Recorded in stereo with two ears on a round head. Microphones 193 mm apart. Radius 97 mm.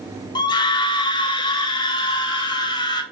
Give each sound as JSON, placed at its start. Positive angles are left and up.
{"t": 0.3, "sound": "a scream", "side_deg": 20, "distance_m": 1.9}